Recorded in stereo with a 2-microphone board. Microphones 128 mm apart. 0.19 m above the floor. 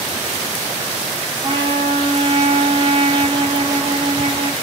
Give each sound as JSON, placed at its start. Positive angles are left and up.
{"t": 1.4, "sound": "a trumpet", "side_deg": -45, "distance_m": 3.0}